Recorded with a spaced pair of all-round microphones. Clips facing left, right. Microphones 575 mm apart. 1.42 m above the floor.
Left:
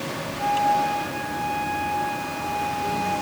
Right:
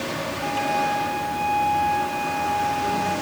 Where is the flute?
45° left (ahead or behind), 8 m.